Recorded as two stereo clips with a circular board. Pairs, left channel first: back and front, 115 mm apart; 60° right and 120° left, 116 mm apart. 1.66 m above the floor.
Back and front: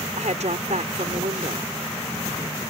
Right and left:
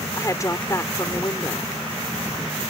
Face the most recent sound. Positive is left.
turn(degrees=0)